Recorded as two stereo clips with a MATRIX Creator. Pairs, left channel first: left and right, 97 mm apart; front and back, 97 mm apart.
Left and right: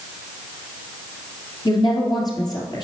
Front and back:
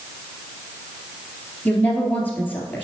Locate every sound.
1.6 s a woman speaking: 70° left, 2 m